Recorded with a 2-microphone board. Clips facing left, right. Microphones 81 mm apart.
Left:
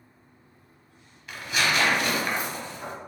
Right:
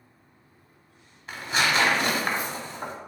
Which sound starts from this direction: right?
Tearing paper, at 1.3 s.